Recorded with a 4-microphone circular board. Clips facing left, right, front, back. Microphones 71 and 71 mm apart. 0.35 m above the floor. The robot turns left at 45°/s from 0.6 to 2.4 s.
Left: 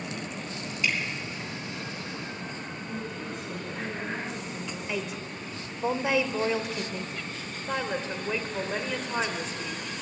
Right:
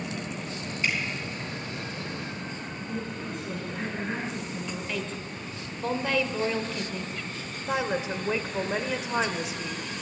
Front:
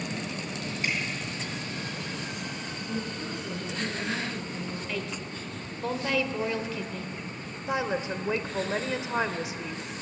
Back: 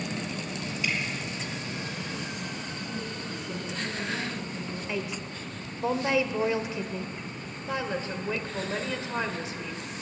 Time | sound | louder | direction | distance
0.8 | dripping | even, even | 35° right | 4 m
2.9 | a woman speaking | right 2 dB, front 5 dB | 5° right | 4.5 m
4.9 | a woman speaking | even, back 1 dB | 140° left | 0.9 m
7.7 | a woman speaking | right 3 dB, front 3 dB | 30° right | 0.9 m